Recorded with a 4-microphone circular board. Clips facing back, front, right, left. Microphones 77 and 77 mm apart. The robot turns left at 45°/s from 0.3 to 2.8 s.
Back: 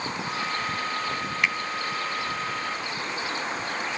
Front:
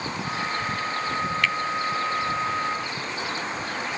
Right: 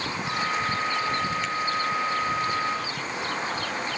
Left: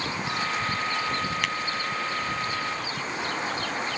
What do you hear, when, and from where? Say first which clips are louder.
1.4 s a finger snap: back 2 dB, even; 110° left; by 1.6 s 105° left